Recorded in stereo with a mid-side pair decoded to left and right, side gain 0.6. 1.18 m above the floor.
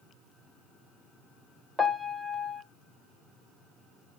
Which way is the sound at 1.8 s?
Straight ahead.